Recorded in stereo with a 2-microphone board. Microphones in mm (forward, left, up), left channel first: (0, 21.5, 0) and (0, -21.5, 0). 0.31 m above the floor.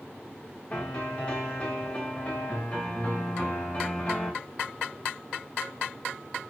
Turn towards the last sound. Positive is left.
turn(degrees=25)  # may be behind; listen again after turning